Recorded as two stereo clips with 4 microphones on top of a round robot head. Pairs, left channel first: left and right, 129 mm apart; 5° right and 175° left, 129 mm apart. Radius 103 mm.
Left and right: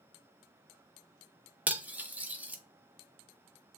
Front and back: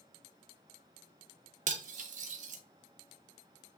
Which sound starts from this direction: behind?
Cutlery clinking, at 1.7 s.